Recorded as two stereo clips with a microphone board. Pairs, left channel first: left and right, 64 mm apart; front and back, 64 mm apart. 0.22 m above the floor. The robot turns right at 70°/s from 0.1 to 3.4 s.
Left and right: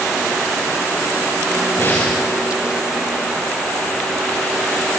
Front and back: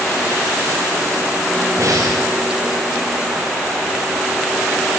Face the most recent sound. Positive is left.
turn(degrees=-105)